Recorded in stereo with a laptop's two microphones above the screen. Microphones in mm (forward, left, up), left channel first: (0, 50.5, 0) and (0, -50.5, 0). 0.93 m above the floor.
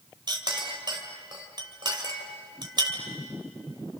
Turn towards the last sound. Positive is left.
turn(degrees=-45)  # may be behind; listen again after turning